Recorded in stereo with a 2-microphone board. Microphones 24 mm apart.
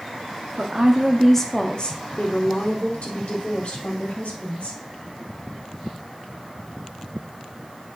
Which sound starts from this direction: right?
A woman speaking, at 0.6 s.